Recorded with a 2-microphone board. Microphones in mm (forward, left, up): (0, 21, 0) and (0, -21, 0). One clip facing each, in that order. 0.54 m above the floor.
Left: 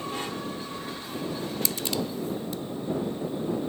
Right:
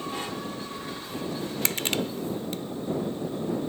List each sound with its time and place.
1.6 s crushing: 55° right (ahead or behind)